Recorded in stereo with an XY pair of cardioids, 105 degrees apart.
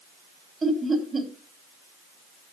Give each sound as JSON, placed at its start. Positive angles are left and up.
{"t": 0.6, "sound": "laughter", "azimuth_deg": -30, "distance_m": 4.0}